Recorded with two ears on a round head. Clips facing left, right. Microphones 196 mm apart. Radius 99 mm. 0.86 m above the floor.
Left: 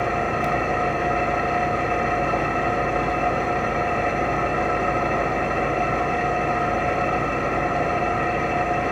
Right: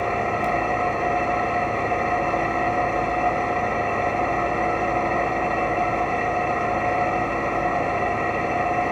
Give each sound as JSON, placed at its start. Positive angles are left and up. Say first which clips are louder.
{"t": 0.0, "sound": "an engine running", "louder": "even", "side_deg": 15, "distance_m": 1.2}